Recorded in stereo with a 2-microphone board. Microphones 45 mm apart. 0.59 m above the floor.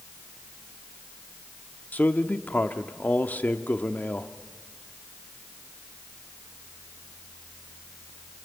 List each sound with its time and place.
1.9 s a man speaking: 40° left (ahead or behind), 1.0 m